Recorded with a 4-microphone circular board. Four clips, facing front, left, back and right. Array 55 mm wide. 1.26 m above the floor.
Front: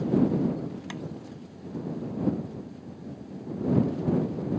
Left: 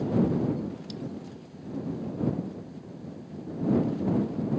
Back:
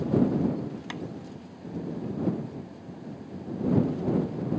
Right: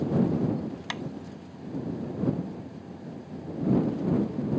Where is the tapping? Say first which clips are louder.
Right 5 dB, back 1 dB; 100° right.